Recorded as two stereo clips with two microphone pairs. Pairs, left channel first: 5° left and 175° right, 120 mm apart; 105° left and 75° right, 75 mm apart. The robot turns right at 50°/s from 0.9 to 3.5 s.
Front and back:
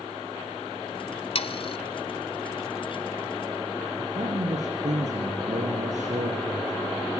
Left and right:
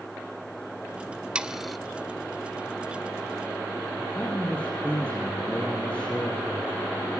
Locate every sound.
1.4 s sawing: straight ahead, 0.9 m; by 1.8 s 20° left, 0.9 m
4.0 s a man speaking: straight behind, 4.5 m